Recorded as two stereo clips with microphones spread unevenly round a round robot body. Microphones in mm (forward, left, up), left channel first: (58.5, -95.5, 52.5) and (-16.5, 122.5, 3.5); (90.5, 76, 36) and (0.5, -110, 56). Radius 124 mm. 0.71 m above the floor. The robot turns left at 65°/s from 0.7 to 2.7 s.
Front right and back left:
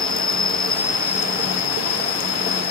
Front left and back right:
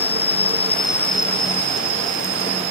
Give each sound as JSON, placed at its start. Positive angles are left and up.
{"t": 0.0, "sound": "an insect", "azimuth_deg": 5}